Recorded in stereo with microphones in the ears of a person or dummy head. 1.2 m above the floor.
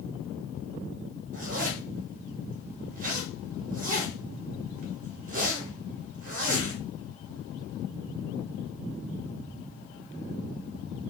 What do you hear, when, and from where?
1.3 s a zipper: 45° right (ahead or behind), 0.6 m